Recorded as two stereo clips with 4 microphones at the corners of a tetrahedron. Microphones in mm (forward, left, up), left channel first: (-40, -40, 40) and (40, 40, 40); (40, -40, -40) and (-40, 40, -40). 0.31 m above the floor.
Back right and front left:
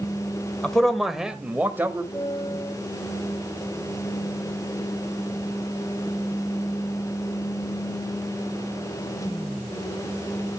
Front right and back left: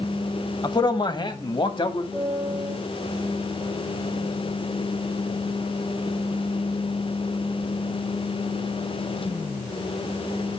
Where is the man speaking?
60° right, 1.2 m; by 2.0 s 20° right, 1.5 m.